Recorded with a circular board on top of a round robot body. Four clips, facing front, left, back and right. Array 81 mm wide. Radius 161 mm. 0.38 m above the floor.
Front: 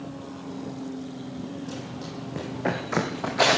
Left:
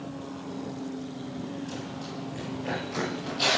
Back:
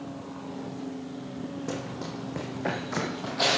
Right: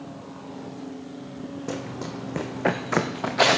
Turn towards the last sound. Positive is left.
turn(degrees=-55)